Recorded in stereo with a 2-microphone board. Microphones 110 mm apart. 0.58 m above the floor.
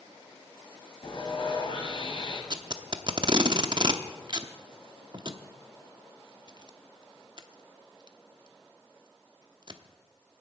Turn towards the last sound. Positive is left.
turn(degrees=-45)  # may be behind; listen again after turning